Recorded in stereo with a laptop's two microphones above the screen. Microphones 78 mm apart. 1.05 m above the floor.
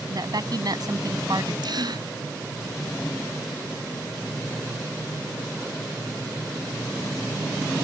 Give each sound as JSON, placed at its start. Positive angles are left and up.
{"t": 0.1, "sound": "a woman speaking", "side_deg": -60}
{"t": 1.6, "sound": "a gasp", "side_deg": -65}